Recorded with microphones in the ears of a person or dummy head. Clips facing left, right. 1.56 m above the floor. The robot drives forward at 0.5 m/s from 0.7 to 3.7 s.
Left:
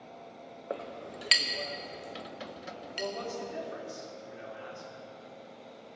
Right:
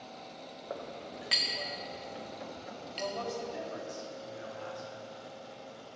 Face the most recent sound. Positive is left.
turn(degrees=25)  # may be behind; listen again after turning